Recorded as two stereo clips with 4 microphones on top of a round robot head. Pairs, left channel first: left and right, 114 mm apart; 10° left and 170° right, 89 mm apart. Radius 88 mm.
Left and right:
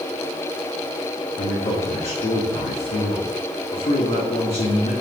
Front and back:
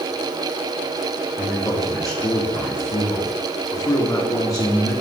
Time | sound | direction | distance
1.4 | a man speaking | 60° left | 2.5 m